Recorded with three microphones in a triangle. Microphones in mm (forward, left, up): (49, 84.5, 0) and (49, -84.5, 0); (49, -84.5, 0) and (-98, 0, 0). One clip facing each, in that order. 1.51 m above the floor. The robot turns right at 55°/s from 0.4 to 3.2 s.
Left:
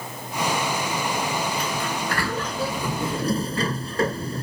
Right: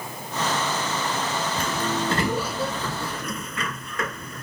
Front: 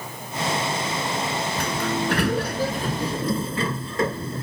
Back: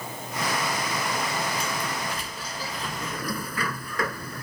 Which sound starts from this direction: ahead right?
A sliding door, at 1.6 s.